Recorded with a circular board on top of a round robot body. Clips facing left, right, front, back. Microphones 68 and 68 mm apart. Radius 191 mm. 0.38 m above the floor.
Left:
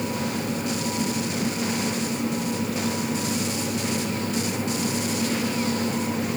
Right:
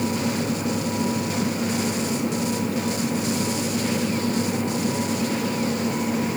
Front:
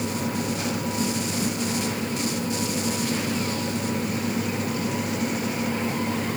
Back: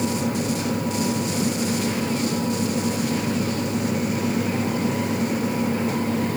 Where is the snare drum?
No snare drum in this recording.